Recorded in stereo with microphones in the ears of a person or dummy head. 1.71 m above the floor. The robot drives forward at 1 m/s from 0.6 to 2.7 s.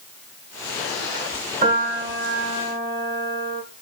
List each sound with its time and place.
1.6 s a piano: 45° right (ahead or behind), 2.5 m; by 3.6 s 65° right (ahead or behind), 2 m